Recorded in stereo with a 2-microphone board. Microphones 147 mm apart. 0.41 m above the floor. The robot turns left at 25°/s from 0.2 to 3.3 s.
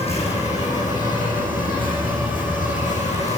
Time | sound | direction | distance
0.0 | an insect | 130° left | 8 m